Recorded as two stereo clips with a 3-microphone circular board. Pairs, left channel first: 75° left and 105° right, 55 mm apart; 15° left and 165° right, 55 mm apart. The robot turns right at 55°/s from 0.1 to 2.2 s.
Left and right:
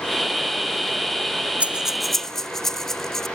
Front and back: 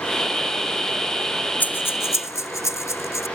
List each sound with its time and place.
1.6 s breathing: 40° right; by 3.3 s 10° right